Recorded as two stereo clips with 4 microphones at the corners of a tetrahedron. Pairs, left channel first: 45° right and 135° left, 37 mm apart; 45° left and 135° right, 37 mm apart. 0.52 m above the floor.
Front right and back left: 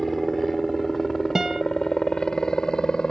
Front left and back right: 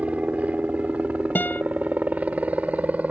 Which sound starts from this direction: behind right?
A helicopter, at 0.0 s.